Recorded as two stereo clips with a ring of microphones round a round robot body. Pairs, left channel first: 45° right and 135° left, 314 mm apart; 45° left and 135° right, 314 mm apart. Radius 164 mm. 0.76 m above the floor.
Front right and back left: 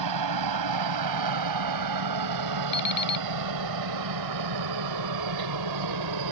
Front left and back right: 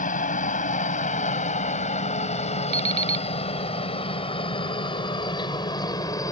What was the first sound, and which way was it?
A helicopter, 110° left.